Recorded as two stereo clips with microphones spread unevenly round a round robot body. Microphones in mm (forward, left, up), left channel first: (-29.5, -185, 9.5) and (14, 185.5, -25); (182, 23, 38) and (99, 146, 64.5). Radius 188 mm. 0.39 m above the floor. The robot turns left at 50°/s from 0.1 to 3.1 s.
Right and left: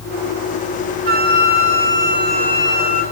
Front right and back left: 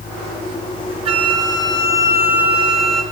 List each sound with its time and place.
1.1 s a flute: 105° left, 1.4 m; by 3.0 s 5° left, 1.4 m